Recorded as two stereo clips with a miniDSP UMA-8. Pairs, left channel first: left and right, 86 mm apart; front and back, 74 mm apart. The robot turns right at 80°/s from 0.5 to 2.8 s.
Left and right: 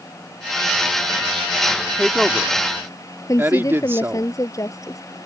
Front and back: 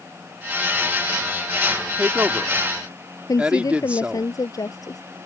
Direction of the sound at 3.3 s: 40° left.